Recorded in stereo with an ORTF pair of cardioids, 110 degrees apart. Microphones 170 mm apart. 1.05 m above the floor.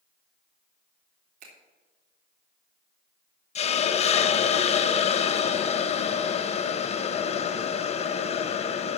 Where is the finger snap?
70° right, 3.5 m.